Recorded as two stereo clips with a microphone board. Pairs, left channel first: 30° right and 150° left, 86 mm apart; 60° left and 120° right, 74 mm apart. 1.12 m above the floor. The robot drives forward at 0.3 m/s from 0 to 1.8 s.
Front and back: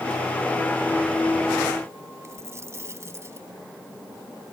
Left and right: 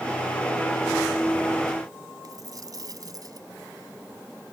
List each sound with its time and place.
2.2 s a dropped coin: 155° right